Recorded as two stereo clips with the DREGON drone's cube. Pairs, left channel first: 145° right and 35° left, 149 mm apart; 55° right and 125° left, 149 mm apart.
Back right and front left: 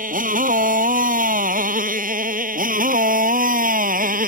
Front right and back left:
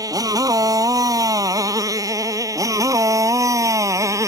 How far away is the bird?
No bird in this recording.